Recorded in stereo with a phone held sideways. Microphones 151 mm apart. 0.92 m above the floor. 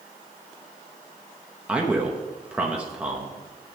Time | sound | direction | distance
1.7 | a man speaking | 10° right (ahead or behind) | 1.1 m